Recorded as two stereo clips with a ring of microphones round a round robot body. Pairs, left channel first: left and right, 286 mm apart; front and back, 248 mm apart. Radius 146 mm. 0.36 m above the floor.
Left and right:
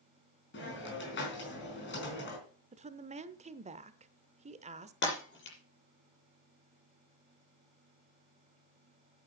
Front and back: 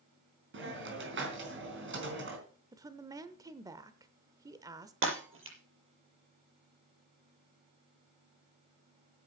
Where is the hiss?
140° left, 4 m.